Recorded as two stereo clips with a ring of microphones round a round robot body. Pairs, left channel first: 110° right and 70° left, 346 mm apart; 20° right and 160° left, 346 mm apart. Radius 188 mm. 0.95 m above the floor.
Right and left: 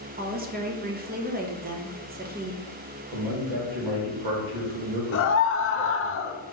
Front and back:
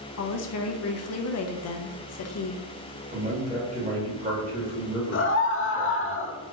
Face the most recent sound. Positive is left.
turn(degrees=-70)